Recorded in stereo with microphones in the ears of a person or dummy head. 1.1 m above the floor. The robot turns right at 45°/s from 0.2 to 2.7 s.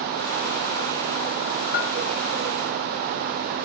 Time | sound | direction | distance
1.7 | a bell | 50° left (ahead or behind) | 0.7 m